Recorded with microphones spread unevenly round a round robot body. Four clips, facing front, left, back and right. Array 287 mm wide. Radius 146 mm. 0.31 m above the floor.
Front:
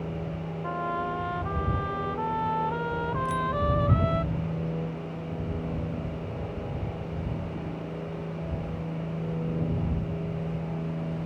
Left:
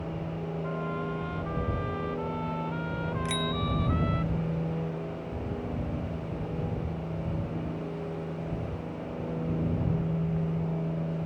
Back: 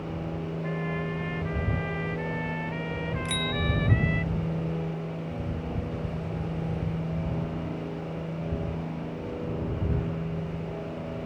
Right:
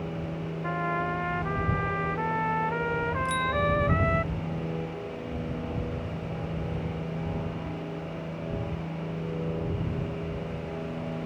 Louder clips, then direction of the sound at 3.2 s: Right 5 dB, front 5 dB; 135° left.